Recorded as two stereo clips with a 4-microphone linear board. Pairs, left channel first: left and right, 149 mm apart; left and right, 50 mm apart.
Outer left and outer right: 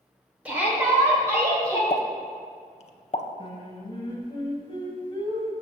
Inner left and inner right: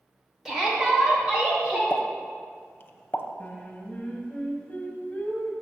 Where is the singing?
35° left (ahead or behind), 0.9 m.